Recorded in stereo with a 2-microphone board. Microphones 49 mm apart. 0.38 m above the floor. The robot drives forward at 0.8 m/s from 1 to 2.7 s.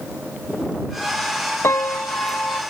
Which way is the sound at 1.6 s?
70° left (ahead or behind).